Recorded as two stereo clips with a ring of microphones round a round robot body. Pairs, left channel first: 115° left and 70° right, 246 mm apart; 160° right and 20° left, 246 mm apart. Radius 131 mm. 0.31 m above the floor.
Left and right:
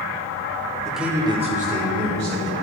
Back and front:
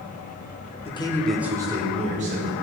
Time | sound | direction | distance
0.8 | a man speaking | 165° right | 1.1 m